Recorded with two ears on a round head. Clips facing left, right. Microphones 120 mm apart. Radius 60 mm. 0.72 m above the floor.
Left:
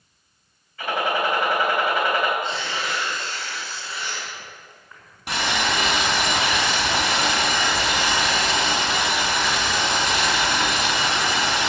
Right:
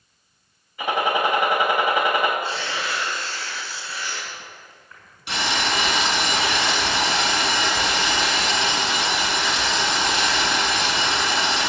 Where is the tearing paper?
15° left (ahead or behind), 6.5 m.